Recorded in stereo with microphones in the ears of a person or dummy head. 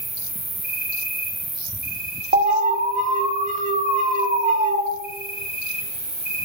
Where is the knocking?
No knocking in this recording.